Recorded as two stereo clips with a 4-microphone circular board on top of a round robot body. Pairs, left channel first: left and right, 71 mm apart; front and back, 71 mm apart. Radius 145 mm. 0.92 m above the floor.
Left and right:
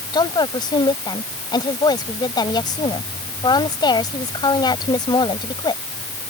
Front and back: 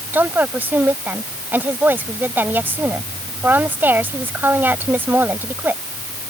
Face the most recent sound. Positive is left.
turn(degrees=115)